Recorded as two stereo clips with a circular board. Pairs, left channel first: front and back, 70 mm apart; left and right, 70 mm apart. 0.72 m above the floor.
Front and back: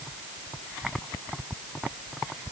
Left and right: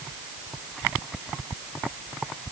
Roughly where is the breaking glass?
No breaking glass in this recording.